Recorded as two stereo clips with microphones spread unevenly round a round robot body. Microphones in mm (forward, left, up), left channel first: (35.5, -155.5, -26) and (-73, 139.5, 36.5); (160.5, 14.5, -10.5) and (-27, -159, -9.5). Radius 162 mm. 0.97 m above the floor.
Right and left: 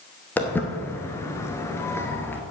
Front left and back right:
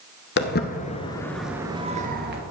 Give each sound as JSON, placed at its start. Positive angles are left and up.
{"t": 0.4, "sound": "footsteps", "azimuth_deg": 25, "distance_m": 1.2}